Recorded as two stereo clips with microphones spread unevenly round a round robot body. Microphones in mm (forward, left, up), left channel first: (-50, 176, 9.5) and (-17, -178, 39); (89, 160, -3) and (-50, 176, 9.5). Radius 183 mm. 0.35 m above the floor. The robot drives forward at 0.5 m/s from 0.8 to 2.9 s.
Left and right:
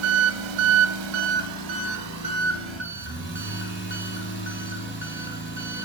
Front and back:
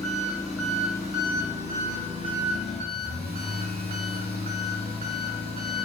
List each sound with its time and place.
0.0 s an engine running: 95° right, 0.8 m; by 5.8 s 145° right, 1.4 m